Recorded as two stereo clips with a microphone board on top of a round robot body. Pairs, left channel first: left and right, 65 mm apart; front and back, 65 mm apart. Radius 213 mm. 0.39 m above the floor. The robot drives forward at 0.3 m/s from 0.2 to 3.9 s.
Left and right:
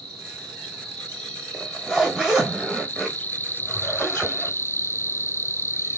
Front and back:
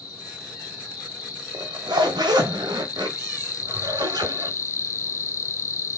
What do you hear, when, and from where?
0.0 s an insect: 10° left, 1.5 m; by 6.0 s 40° left, 0.5 m
1.5 s a zipper: 175° right, 1.0 m